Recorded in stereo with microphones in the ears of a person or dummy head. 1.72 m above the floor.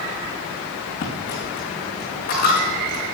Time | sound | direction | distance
1.0 | a dropped coin | 50° left (ahead or behind) | 5 m